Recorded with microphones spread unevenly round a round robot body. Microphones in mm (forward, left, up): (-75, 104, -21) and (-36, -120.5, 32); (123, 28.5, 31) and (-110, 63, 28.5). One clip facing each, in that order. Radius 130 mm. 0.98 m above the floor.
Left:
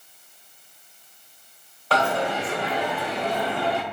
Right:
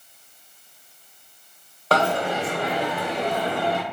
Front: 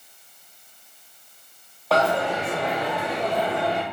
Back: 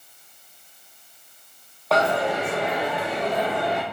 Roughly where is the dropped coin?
Right.